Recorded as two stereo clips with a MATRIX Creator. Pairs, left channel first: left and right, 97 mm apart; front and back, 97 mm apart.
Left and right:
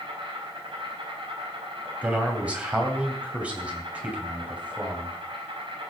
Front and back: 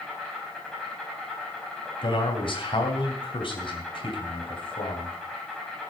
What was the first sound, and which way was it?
An insect, 85° right.